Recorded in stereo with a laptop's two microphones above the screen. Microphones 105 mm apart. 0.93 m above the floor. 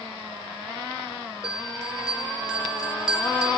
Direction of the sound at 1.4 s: 10° right (ahead or behind).